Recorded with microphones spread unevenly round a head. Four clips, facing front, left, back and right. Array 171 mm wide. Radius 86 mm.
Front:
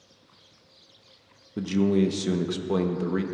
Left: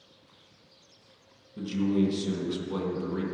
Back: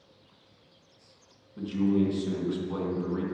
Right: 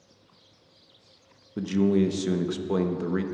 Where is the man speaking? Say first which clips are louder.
Right 4 dB, front 3 dB; 45° right, 0.9 m.